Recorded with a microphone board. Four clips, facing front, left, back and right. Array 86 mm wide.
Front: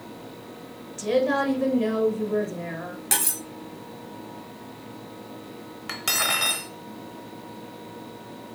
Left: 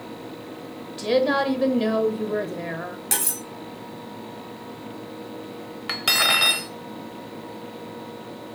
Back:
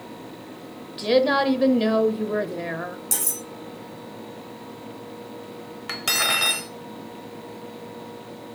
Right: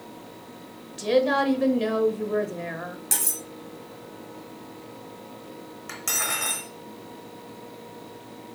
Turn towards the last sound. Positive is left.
turn(degrees=95)